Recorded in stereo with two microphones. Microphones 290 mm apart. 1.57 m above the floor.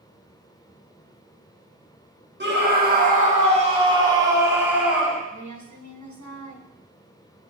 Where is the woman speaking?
70° right (ahead or behind), 1.7 m.